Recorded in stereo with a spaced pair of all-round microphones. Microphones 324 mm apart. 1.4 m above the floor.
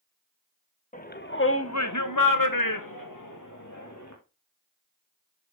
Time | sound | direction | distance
0.9 | a shout | 25° left (ahead or behind) | 1.7 m